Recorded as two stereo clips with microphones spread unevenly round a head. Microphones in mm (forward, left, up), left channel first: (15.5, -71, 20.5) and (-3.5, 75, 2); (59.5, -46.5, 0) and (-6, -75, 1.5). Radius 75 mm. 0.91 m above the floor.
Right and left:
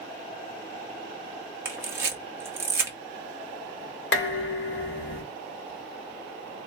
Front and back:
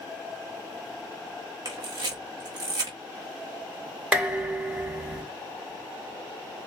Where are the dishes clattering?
80° right, 2.5 m.